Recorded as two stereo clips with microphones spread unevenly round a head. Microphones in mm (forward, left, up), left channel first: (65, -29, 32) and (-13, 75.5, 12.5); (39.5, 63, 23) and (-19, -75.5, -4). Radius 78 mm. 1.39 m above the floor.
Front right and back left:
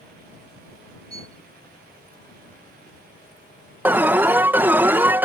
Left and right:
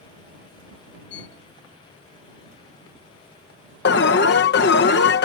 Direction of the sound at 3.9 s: 50° left.